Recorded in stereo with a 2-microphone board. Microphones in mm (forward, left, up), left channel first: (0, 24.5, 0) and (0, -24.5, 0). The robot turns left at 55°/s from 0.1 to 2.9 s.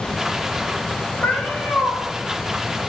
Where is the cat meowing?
45° left, 1.5 m; by 2.0 s 5° left, 1.5 m.